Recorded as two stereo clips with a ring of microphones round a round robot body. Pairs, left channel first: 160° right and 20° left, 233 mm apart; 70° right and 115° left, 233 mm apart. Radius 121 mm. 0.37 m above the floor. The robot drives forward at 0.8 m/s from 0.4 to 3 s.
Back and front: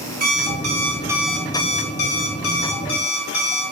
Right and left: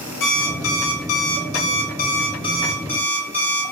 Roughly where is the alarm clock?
Ahead right.